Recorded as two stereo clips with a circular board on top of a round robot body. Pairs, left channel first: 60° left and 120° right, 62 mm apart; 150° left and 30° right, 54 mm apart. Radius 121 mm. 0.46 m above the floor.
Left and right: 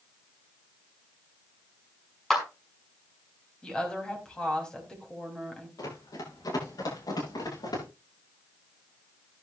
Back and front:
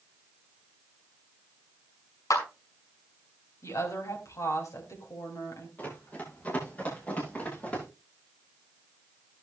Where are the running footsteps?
90° left, 8.5 m; by 7.8 s 85° left, 10 m.